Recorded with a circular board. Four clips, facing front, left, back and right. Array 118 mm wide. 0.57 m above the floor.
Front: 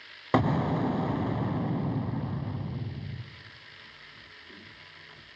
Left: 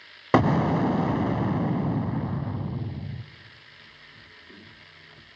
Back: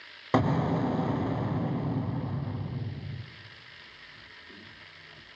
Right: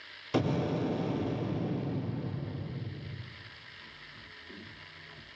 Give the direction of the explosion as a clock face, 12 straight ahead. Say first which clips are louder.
Left 9 dB, even; 9 o'clock.